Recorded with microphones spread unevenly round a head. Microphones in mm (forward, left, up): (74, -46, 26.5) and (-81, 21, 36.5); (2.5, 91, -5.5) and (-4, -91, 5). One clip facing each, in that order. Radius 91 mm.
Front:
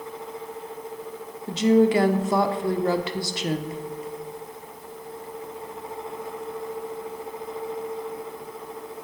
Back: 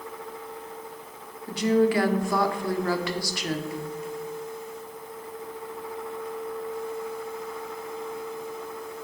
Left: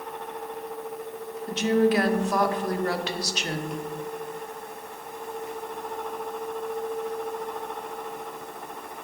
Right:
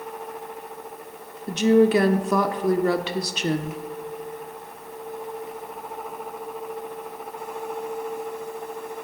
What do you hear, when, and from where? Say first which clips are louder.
1.5 s a woman speaking: front 4 dB, right 5 dB; 90° right, 0.6 m